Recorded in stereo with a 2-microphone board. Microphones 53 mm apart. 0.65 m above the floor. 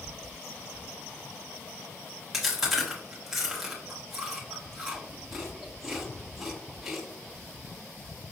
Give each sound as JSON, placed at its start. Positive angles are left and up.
{"t": 2.3, "sound": "chewing", "side_deg": -10, "distance_m": 1.2}